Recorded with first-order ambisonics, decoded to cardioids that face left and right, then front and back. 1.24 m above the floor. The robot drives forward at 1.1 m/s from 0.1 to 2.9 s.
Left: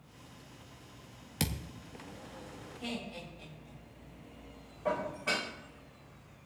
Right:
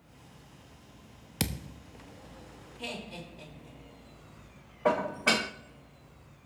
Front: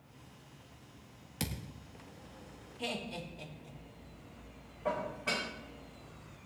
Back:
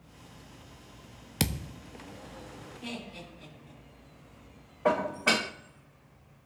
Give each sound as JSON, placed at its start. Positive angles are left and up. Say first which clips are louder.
{"t": 1.4, "sound": "a thud", "louder": "right 2 dB, back 8 dB", "azimuth_deg": -165, "distance_m": 0.6}
{"t": 2.8, "sound": "laughter", "louder": "right 2 dB, front 4 dB", "azimuth_deg": -45, "distance_m": 6.0}
{"t": 4.8, "sound": "dishes clattering", "louder": "right 6 dB, back 9 dB", "azimuth_deg": -135, "distance_m": 0.8}